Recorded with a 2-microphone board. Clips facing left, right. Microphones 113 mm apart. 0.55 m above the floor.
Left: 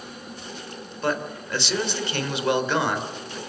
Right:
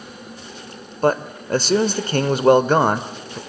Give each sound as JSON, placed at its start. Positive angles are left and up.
{"t": 1.0, "sound": "a man speaking", "side_deg": -40, "distance_m": 1.8}